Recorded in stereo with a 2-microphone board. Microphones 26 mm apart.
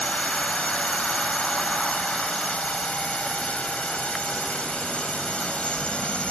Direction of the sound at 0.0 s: 55° left (ahead or behind).